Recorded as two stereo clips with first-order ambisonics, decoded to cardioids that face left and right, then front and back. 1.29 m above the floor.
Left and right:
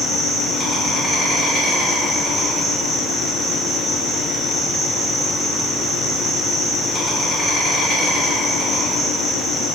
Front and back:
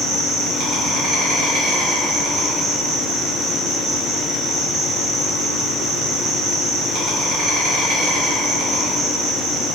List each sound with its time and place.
0.0 s an insect: 155° left, 1.0 m